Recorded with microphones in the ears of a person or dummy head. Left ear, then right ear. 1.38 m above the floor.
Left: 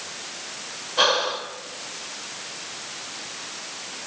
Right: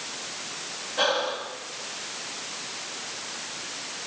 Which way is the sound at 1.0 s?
45° left (ahead or behind).